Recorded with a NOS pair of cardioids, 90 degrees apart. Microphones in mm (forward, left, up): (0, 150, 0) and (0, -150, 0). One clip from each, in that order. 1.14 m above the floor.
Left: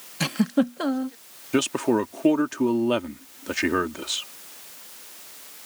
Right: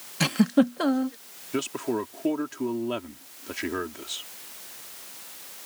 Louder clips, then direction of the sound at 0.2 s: Right 1 dB; 5° right.